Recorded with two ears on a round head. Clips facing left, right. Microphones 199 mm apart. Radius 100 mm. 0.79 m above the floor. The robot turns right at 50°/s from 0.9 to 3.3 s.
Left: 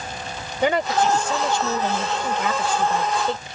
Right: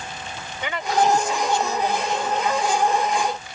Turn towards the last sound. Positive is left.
turn(degrees=155)